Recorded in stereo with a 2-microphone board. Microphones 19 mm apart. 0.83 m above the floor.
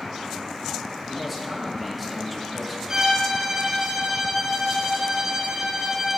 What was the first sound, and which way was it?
A man speaking, centre (ahead or behind).